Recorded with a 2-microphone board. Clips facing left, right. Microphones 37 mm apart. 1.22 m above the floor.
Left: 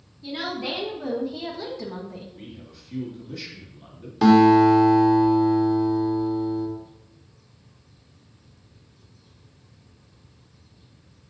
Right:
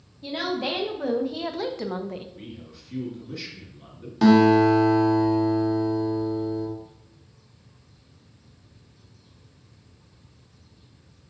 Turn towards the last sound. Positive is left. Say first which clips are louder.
# left 2 dB
turn(degrees=5)  # may be behind; listen again after turning